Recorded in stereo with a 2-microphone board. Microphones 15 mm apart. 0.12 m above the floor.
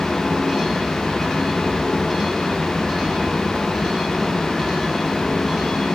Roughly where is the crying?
I don't hear crying.